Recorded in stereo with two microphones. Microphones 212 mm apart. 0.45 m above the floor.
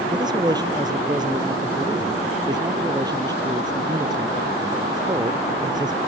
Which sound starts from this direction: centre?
A man speaking, at 0.1 s.